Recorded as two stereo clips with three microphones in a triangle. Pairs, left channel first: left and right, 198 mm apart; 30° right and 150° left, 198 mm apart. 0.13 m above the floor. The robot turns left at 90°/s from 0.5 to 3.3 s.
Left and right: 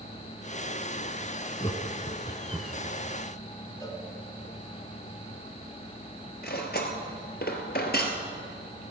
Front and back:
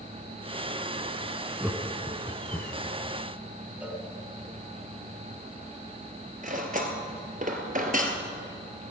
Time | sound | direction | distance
1.6 | laughter | 75° left | 1.2 m
3.8 | a cowbell | 85° left | 1.3 m
6.4 | cutlery clinking | 110° left | 1.4 m